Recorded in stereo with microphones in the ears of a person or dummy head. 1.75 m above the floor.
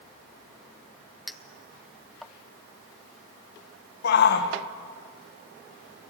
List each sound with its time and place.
1.3 s a clink: centre (ahead or behind), 0.6 m
4.0 s a shout: 65° left (ahead or behind), 2 m